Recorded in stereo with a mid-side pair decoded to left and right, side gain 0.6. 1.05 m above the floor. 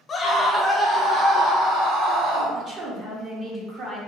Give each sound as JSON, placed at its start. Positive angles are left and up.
{"t": 0.1, "sound": "a scream", "azimuth_deg": 35, "distance_m": 0.9}
{"t": 2.5, "sound": "a woman speaking", "azimuth_deg": -35, "distance_m": 1.5}